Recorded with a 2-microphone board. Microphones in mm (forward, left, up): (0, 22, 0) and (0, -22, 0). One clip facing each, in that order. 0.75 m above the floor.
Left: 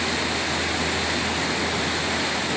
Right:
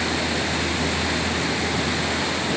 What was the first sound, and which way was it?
Only background noise.